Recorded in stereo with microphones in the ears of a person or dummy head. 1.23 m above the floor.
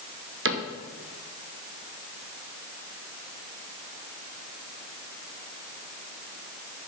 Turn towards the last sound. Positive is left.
turn(degrees=-55)  # may be behind; listen again after turning